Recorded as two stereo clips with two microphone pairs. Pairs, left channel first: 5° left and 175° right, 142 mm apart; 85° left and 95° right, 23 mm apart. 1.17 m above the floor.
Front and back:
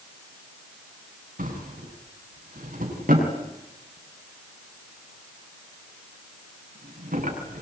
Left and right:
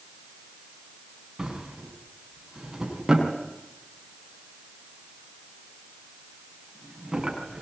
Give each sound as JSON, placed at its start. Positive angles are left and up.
{"t": 1.4, "sound": "a drawer", "azimuth_deg": -160, "distance_m": 6.5}